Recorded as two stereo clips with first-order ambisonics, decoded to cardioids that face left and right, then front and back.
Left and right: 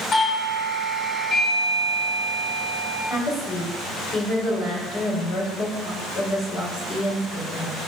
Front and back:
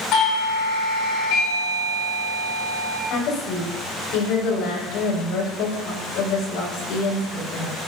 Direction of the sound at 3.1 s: 25° left.